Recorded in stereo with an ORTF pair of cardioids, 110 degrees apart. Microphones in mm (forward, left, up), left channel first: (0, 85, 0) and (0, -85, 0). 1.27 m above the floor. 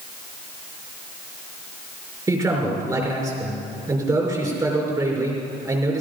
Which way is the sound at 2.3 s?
20° right.